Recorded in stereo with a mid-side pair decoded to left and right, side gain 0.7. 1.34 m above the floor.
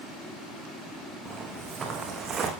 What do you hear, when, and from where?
1.2 s footsteps: 25° right, 6 m; by 2.5 s 40° right, 6.5 m